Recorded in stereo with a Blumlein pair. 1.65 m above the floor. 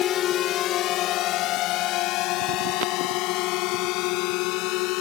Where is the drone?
30° left; by 5.0 s 40° left.